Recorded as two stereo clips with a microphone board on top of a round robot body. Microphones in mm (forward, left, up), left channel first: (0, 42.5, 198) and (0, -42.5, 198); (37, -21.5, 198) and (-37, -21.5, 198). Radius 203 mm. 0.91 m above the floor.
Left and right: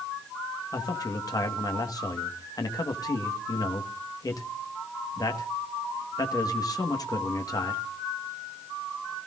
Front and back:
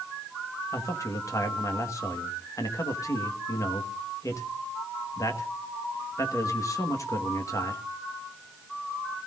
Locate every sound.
0.7 s a man speaking: 45° left, 1.7 m